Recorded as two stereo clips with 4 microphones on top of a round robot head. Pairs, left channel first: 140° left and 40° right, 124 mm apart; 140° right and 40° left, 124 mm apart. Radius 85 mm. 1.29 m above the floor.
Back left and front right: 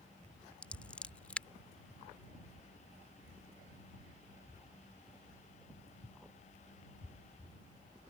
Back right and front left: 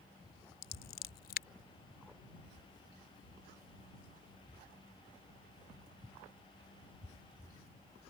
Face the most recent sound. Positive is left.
turn(degrees=-140)